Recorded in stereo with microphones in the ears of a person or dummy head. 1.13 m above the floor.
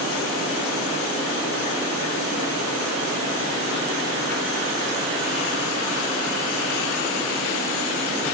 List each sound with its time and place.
Only background noise.